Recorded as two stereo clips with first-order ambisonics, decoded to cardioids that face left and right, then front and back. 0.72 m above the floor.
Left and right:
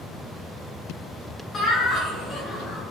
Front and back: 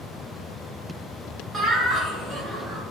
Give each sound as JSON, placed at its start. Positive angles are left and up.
{"t": 1.5, "sound": "laughter", "azimuth_deg": 145, "distance_m": 0.8}